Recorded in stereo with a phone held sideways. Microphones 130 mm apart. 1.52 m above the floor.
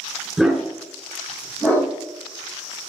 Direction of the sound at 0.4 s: Centre (ahead or behind).